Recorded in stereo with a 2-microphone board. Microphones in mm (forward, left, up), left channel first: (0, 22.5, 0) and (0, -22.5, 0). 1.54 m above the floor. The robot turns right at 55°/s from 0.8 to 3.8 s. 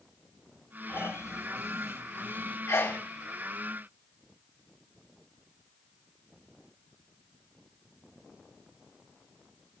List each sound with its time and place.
0.9 s snoring: 55° left, 5.5 m; by 2.6 s 150° left, 5.5 m
2.7 s a sneeze: 80° left, 1.8 m; by 3.0 s 70° left (ahead or behind), 1.8 m